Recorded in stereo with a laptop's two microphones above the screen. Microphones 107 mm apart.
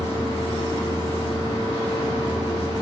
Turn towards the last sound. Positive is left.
turn(degrees=-45)  # may be behind; listen again after turning